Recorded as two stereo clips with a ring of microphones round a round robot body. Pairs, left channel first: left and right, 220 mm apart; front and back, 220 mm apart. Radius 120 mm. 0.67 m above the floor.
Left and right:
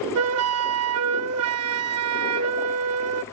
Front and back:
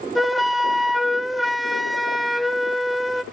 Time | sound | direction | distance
0.1 | a flute | 90° right | 0.6 m